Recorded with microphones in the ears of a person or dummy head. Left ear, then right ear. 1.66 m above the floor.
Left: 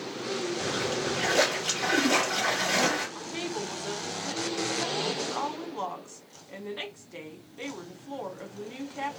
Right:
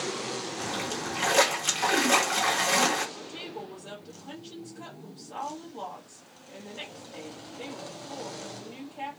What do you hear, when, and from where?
0.6 s a splash: 40° right (ahead or behind), 0.9 m
3.1 s a woman speaking: 65° left (ahead or behind), 1.0 m